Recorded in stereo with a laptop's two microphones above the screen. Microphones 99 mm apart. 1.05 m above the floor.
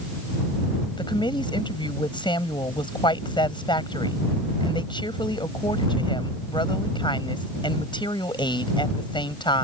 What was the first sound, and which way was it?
A woman speaking, 55° left (ahead or behind).